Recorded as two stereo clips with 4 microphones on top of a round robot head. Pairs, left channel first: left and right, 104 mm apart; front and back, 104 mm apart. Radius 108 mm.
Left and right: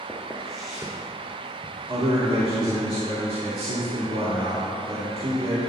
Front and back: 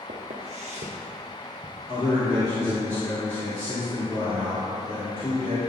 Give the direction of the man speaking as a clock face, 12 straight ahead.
2 o'clock.